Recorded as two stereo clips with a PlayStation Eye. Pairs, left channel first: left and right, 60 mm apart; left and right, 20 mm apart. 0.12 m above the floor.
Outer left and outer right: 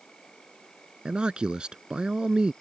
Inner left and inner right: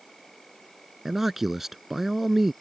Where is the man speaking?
15° right (ahead or behind).